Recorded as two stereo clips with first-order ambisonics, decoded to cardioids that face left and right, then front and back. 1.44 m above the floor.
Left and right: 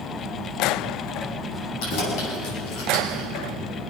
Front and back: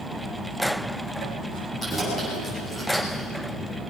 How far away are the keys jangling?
About 8.5 m.